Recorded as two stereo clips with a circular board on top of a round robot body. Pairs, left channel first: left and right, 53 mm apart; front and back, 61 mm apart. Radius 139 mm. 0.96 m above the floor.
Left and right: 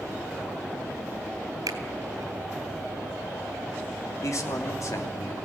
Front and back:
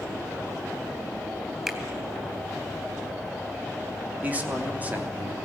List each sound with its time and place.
1.7 s a finger snap: 95° right, 3 m
4.2 s a man speaking: 115° left, 3.5 m